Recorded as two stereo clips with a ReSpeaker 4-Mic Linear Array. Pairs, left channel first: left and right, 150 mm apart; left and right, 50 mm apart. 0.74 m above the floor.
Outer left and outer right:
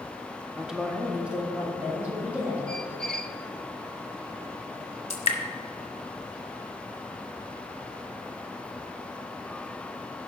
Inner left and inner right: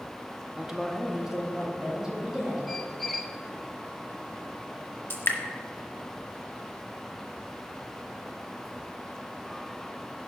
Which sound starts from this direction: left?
Dripping, at 5.1 s.